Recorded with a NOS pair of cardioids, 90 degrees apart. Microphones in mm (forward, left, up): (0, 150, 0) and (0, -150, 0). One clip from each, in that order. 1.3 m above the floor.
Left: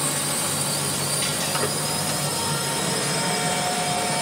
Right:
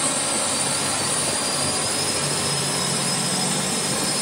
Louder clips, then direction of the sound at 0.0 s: Right 2 dB; 50° right.